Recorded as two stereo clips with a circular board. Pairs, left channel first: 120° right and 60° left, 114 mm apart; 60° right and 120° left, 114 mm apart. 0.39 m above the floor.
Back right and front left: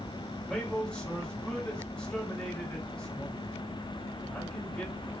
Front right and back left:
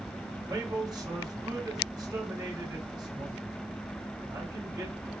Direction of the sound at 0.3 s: 160° left.